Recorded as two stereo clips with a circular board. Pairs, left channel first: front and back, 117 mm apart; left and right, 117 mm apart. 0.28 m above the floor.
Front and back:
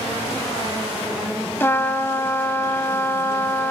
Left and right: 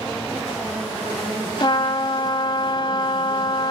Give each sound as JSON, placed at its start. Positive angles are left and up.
{"t": 1.6, "sound": "a trumpet", "azimuth_deg": 65, "distance_m": 1.0}